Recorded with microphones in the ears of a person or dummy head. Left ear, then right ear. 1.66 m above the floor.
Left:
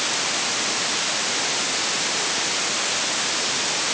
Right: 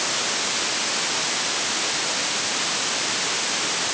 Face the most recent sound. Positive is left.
No sound to turn to.